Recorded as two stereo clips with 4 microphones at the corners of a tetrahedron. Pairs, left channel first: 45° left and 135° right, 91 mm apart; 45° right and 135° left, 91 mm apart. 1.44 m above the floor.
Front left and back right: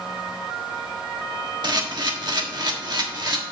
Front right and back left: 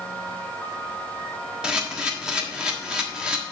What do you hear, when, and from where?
1.6 s a camera shutter: 145° right, 1.3 m